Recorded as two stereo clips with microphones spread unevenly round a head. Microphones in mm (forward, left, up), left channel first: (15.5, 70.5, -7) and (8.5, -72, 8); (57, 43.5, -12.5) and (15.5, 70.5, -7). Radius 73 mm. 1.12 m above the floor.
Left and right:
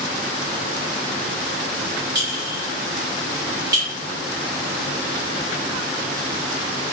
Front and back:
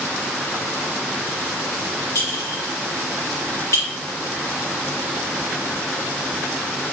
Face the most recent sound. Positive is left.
turn(degrees=-30)